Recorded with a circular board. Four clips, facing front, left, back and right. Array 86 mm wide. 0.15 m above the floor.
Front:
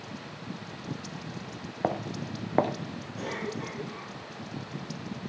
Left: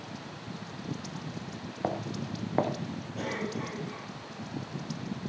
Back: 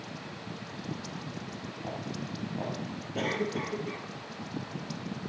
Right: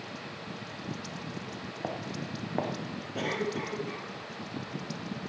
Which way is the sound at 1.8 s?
10° left.